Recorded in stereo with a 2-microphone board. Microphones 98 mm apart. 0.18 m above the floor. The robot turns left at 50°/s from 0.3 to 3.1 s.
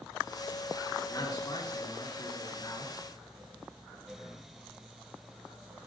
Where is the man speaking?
140° left, 2.5 m; by 2.9 s 45° left, 2.5 m.